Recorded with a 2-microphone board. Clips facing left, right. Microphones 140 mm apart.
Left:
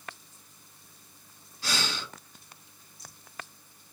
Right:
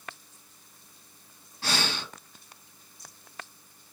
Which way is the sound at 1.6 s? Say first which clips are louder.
Right 3 dB; 60° right (ahead or behind).